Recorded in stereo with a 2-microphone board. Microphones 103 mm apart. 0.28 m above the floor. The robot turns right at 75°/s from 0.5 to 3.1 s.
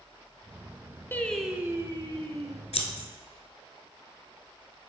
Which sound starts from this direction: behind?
Singing, at 1.1 s.